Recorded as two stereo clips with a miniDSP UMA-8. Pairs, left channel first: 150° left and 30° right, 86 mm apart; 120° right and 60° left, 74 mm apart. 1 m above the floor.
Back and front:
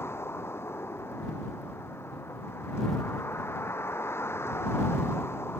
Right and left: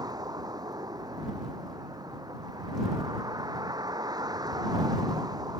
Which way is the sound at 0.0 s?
90° left.